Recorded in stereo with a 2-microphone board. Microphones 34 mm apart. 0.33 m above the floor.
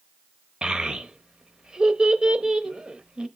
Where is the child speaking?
25° right (ahead or behind), 0.8 m.